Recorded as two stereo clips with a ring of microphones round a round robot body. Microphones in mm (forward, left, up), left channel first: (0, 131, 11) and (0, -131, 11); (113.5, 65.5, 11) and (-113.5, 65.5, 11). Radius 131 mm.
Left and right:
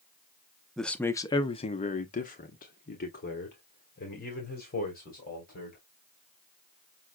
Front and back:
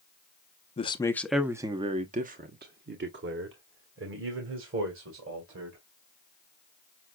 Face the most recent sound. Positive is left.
turn(degrees=150)